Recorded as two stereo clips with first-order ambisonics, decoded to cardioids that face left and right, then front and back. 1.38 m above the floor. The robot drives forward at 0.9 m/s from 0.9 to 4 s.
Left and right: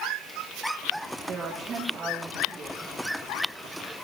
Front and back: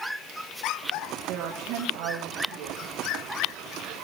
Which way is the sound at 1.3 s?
150° right.